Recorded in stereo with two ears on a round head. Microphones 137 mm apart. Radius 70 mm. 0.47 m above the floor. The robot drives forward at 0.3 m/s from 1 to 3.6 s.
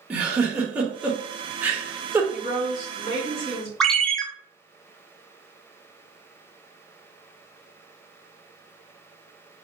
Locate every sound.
0.1 s a giggle: 10° right (ahead or behind), 0.8 m; by 2.2 s 15° right (ahead or behind), 0.5 m
2.3 s a woman speaking: 45° left (ahead or behind), 1.9 m; by 3.7 s 40° left (ahead or behind), 2 m
3.8 s a ringtone: 5° left (ahead or behind), 0.5 m